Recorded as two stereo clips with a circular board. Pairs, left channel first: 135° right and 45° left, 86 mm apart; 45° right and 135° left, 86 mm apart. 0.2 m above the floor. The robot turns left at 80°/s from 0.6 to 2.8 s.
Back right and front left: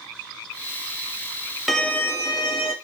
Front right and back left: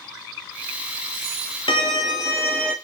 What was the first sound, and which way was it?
A violin, 45° right.